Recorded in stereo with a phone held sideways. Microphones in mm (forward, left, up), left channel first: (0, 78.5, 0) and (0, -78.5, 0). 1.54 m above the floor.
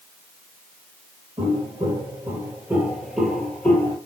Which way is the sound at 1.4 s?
40° right (ahead or behind).